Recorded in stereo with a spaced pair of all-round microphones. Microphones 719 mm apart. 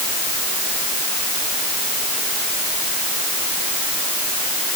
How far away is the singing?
No singing in this recording.